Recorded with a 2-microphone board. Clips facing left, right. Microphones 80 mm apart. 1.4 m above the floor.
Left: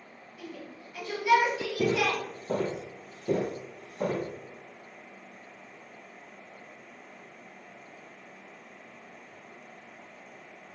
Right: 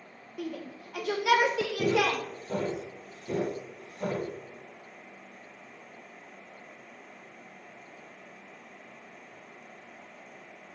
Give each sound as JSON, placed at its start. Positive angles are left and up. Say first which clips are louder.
{"t": 0.4, "sound": "a shout", "louder": "right 6 dB", "side_deg": -60, "distance_m": 1.2}
{"t": 1.8, "sound": "footsteps", "louder": "even", "side_deg": 40, "distance_m": 1.8}